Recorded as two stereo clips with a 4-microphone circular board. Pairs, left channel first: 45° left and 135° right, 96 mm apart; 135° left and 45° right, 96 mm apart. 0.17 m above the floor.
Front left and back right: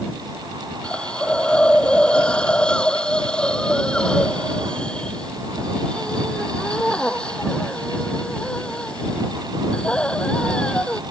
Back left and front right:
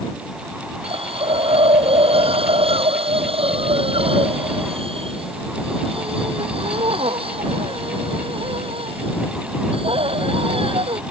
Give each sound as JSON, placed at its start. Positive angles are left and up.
{"t": 0.8, "sound": "a hiss", "azimuth_deg": -35}